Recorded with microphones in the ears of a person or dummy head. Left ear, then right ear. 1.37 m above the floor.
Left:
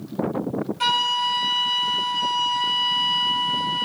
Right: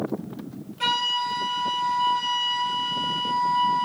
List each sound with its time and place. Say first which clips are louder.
0.8 s a flute: left 2 dB; 20° left (ahead or behind), 0.8 m